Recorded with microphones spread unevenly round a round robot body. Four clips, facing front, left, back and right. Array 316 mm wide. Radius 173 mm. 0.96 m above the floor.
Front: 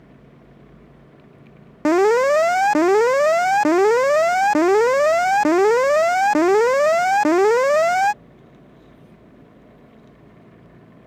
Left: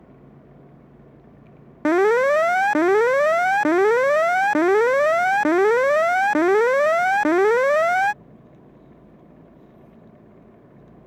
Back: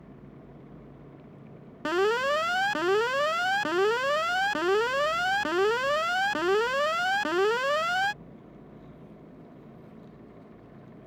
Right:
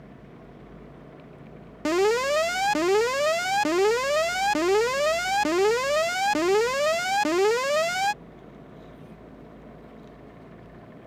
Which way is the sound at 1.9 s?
25° left.